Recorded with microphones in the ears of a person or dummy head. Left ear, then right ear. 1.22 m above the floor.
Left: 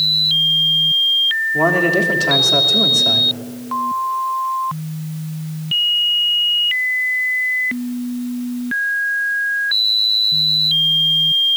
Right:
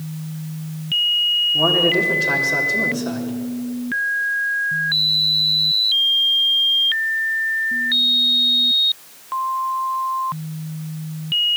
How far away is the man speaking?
About 3 m.